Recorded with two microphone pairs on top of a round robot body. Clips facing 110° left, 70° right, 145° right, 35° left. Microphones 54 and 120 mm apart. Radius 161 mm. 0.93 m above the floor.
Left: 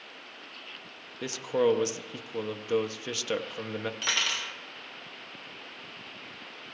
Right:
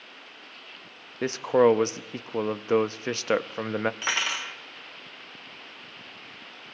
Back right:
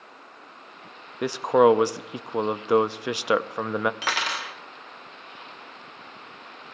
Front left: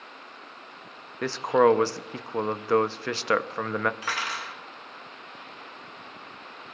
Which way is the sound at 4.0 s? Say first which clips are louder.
Right 2 dB, back right 3 dB; 130° right.